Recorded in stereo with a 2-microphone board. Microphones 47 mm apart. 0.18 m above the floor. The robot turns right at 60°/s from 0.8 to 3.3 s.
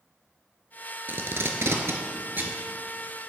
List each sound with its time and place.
1.1 s tape being pulled: 45° right (ahead or behind), 0.9 m; by 2.6 s 40° right (ahead or behind), 0.9 m